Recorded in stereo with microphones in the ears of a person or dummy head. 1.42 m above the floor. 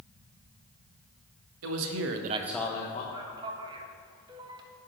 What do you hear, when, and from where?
1.6 s a man speaking: 80° right, 1.2 m; by 3.0 s 35° left (ahead or behind), 1.1 m
3.1 s a man speaking: 25° right (ahead or behind), 1.3 m